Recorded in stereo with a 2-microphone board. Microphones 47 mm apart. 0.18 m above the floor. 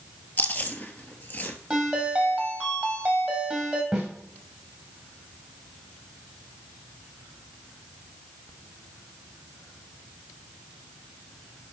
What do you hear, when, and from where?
0.4 s chewing: 35° left (ahead or behind), 0.9 m
1.7 s a ringtone: 15° right (ahead or behind), 2.5 m
3.9 s a snare drum: 10° right (ahead or behind), 3.5 m